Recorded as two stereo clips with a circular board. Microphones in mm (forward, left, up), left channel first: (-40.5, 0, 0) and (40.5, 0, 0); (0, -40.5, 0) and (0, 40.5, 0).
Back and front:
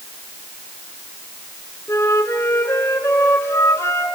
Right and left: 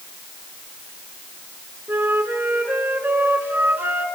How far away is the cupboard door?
I don't hear a cupboard door.